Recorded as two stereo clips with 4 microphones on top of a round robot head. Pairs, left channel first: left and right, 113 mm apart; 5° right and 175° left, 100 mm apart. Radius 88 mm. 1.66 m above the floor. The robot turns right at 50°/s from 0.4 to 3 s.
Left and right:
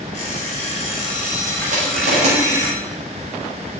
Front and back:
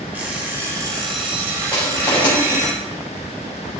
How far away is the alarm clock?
About 4 m.